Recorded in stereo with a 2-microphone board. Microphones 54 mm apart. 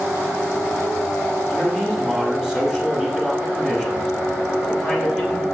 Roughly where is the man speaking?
Centre.